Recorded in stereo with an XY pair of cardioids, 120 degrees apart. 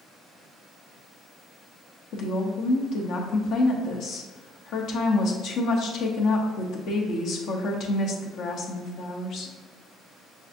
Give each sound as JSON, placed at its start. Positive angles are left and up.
{"t": 2.1, "sound": "a woman speaking", "azimuth_deg": 65, "distance_m": 0.9}